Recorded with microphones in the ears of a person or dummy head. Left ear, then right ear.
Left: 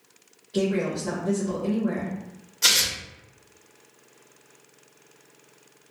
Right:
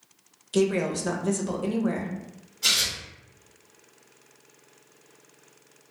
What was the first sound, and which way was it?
A woman speaking, 65° right (ahead or behind).